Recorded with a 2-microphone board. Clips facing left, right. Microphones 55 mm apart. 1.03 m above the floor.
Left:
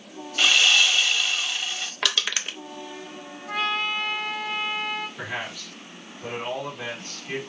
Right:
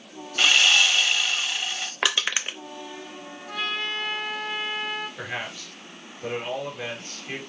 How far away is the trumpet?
About 2.5 m.